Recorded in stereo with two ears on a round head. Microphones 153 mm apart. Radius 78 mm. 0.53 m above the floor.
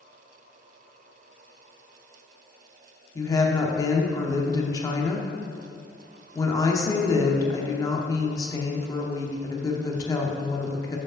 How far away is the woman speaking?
About 0.8 m.